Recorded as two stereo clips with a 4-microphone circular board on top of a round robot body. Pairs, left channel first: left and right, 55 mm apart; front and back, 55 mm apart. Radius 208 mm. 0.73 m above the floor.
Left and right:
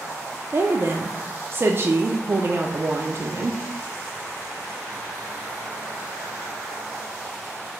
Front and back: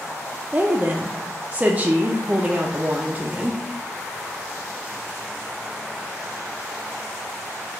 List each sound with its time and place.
0.5 s a woman speaking: 120° right, 0.5 m